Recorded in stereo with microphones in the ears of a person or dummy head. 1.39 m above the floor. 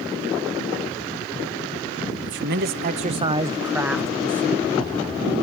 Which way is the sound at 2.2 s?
60° right (ahead or behind).